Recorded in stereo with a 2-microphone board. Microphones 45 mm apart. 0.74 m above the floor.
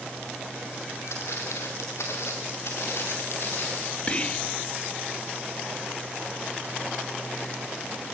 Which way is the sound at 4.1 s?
25° left (ahead or behind).